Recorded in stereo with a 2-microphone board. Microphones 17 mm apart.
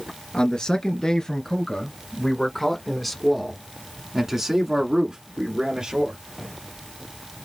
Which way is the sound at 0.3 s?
50° left (ahead or behind).